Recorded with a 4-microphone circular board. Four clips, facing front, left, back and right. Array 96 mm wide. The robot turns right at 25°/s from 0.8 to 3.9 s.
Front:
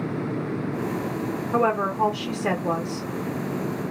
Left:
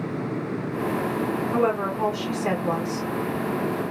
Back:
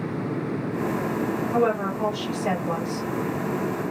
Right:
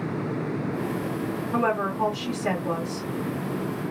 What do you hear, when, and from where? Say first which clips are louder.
1.5 s a woman speaking: even, front 2 dB; straight ahead, 0.9 m; by 3.1 s 40° left, 0.9 m